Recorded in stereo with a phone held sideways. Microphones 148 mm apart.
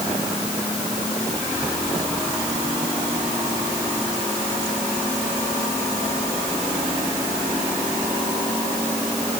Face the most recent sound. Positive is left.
No sound to turn to.